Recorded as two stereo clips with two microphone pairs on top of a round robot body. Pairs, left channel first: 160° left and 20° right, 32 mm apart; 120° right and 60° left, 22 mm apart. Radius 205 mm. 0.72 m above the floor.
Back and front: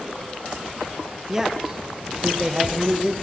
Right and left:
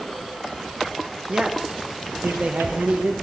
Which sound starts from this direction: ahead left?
A man speaking, at 1.3 s.